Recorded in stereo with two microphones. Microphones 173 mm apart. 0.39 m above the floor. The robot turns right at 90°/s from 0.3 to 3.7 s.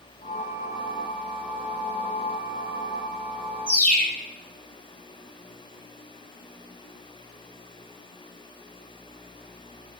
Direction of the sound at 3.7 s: 45° left (ahead or behind).